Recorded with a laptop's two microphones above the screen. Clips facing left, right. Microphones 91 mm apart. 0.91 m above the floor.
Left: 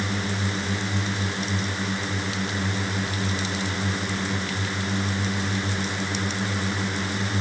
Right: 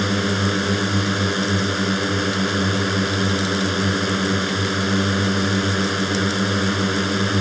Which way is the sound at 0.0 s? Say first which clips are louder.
Right 7 dB; 70° right (ahead or behind).